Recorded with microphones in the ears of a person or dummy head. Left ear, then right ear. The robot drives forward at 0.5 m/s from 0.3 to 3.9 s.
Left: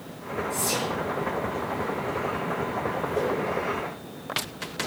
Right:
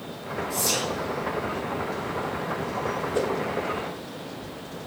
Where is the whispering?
25° right (ahead or behind), 1.8 m; by 0.9 s 30° right (ahead or behind), 1.7 m.